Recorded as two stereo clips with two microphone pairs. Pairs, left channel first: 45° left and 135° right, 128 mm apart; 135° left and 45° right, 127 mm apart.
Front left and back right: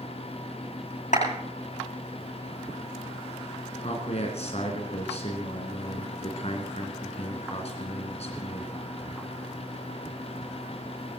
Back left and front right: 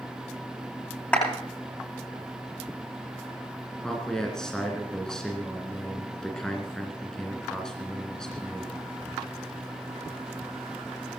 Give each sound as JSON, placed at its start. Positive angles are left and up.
{"t": 1.1, "sound": "a clap", "azimuth_deg": 60, "distance_m": 10.0}
{"t": 3.8, "sound": "a man speaking", "azimuth_deg": 50, "distance_m": 2.5}